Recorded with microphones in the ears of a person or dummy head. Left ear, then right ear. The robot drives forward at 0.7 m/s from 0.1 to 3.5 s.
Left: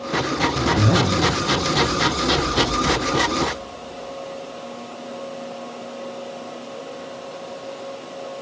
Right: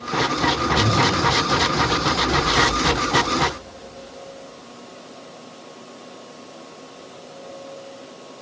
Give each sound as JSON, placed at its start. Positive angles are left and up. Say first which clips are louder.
{"t": 0.6, "sound": "a zipper", "louder": "right 1 dB", "side_deg": 50, "distance_m": 0.6}